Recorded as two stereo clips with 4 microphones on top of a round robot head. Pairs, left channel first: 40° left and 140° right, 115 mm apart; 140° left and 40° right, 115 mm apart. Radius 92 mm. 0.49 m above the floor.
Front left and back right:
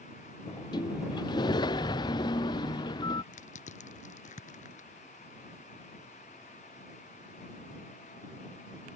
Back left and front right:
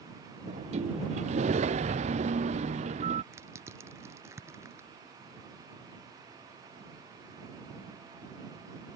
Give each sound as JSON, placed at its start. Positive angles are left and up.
{"t": 0.5, "sound": "a sliding door", "azimuth_deg": -15}
{"t": 3.3, "sound": "crushing", "azimuth_deg": 25}